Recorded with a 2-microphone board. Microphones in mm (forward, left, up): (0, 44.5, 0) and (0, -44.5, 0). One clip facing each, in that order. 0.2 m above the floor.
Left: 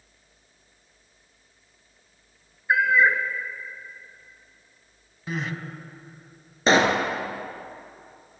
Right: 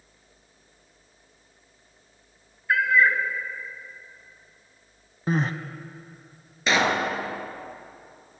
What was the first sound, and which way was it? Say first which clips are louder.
A cat meowing: left 1 dB; 20° left (ahead or behind).